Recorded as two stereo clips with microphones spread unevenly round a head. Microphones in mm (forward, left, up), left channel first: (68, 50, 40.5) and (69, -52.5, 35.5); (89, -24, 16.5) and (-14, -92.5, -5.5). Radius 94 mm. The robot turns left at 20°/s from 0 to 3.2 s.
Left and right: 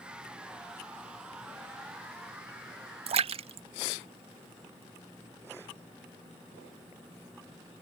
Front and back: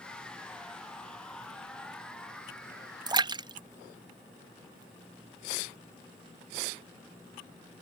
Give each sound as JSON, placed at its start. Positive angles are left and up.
{"t": 3.1, "sound": "a splash", "azimuth_deg": -100}